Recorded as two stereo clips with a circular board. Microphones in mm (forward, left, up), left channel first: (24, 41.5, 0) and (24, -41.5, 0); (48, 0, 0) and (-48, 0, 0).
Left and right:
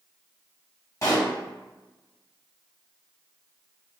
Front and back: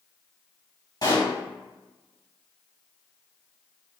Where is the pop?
45° left, 1.8 m.